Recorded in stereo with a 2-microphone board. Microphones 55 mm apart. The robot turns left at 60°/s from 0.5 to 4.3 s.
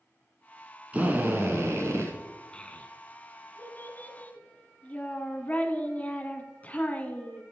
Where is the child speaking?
150° left, 1.3 m; by 7.4 s 45° left, 1.3 m.